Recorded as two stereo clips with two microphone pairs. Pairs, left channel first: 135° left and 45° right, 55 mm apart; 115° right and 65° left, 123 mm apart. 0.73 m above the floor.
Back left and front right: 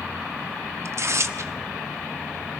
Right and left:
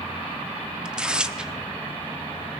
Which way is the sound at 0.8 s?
20° right.